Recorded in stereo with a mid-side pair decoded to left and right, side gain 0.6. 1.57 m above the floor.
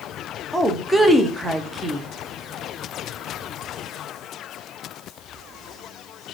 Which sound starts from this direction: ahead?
A woman speaking, at 0.5 s.